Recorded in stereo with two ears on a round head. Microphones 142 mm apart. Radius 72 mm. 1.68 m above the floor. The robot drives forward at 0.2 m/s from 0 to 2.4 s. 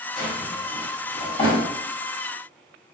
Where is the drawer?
35° left (ahead or behind), 0.9 m; by 1.6 s 30° left (ahead or behind), 1.0 m.